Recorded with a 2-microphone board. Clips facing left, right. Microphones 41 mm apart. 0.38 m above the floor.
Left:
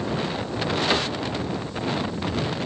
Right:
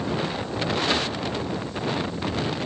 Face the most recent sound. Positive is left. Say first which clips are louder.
# left 1 dB
turn(degrees=30)  # may be behind; listen again after turning